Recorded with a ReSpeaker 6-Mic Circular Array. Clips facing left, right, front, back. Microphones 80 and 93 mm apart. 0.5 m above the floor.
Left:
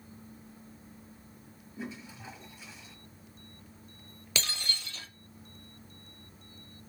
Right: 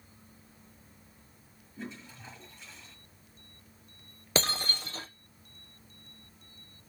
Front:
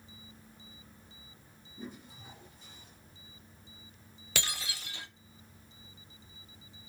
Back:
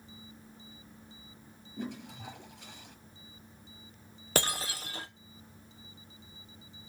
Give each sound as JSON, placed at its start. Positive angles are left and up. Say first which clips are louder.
{"t": 1.8, "sound": "a toilet flushing", "louder": "left 2 dB, back 6 dB", "azimuth_deg": 170, "distance_m": 5.5}
{"t": 4.3, "sound": "breaking glass", "louder": "right 6 dB, back 7 dB", "azimuth_deg": -135, "distance_m": 1.1}